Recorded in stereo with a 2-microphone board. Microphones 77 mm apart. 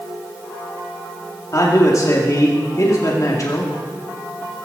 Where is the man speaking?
45° left (ahead or behind), 2 m.